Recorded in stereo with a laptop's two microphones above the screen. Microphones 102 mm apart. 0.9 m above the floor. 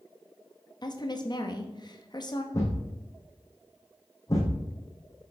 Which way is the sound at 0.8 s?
45° left (ahead or behind).